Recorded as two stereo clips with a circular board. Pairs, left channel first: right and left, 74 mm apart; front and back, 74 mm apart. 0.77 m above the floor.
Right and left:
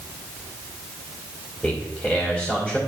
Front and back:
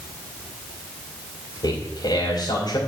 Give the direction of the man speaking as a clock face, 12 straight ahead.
1 o'clock.